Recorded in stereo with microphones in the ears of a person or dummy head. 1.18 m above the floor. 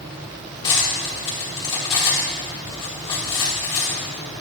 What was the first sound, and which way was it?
Cutlery clinking, 25° left (ahead or behind).